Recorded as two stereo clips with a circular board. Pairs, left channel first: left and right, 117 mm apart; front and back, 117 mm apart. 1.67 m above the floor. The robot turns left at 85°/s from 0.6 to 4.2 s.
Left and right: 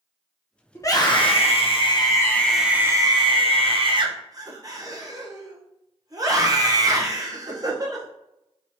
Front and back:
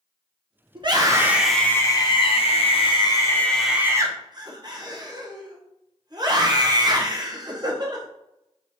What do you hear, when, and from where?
0.8 s a scream: 155° left, 0.9 m; by 8.1 s 140° right, 0.9 m